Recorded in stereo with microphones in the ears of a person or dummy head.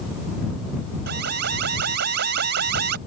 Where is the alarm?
60° right (ahead or behind).